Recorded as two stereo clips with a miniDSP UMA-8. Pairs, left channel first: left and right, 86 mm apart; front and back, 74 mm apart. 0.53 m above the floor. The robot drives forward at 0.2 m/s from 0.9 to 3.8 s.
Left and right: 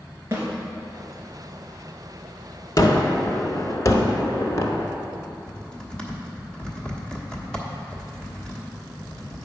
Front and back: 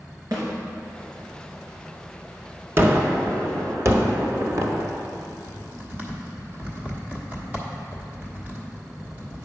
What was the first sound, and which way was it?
A snare drum, 150° right.